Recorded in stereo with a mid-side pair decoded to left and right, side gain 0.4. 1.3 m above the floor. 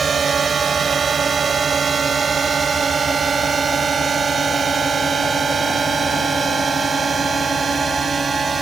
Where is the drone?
45° right; by 8.6 s 40° right.